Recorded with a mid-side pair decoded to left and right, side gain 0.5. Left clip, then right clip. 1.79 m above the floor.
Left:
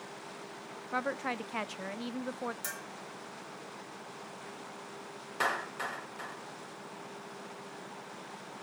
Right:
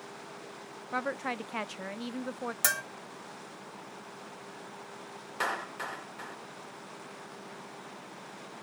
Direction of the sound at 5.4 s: Straight ahead.